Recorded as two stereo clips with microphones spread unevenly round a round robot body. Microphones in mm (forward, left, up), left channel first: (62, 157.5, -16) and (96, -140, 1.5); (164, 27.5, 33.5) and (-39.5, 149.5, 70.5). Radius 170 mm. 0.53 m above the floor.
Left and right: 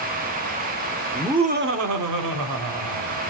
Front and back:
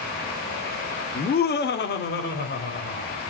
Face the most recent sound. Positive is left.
turn(degrees=-90)